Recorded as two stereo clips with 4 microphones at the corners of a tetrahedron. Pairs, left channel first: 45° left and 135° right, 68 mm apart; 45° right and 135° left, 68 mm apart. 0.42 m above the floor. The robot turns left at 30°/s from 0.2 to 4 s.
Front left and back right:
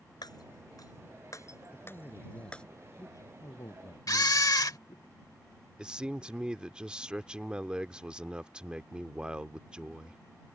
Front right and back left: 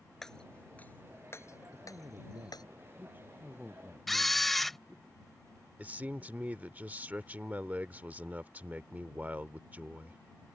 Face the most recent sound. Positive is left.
turn(degrees=165)